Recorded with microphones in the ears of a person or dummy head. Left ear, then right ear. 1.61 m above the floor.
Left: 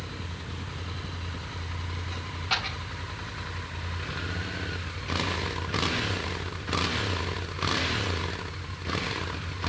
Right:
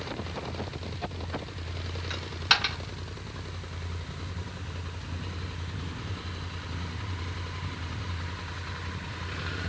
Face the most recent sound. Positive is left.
turn(degrees=-65)  # may be behind; listen again after turning